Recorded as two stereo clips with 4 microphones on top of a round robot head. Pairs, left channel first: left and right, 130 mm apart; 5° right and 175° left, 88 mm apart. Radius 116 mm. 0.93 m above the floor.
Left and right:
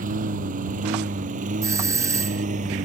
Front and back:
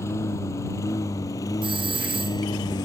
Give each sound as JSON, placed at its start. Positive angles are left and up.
{"t": 0.0, "sound": "a lawn mower", "azimuth_deg": -70}
{"t": 1.6, "sound": "a doorbell", "azimuth_deg": -155}